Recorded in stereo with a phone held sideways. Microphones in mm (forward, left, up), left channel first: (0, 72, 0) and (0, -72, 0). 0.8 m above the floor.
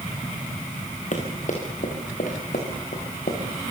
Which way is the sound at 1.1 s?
60° left (ahead or behind).